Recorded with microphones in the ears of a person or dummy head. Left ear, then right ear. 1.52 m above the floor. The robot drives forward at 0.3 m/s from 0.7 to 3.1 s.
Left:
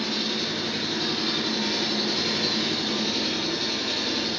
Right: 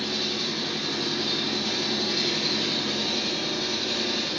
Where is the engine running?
50° left (ahead or behind), 1.6 m; by 4.4 s 40° left (ahead or behind), 2.0 m.